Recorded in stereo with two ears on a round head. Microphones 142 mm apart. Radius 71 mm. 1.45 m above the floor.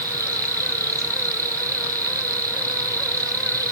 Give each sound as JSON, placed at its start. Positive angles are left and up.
{"t": 0.0, "sound": "an insect", "side_deg": -20}